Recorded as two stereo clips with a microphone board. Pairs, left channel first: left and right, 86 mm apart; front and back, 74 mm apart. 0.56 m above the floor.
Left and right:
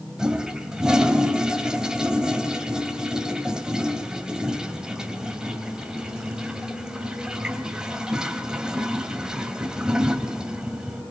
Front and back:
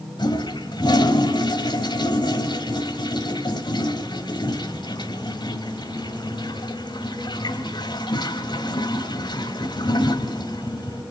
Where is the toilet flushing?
10° right, 1.8 m.